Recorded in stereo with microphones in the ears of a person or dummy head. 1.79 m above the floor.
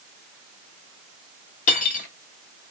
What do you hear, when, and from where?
1.7 s cutlery clinking: 45° left (ahead or behind), 1.5 m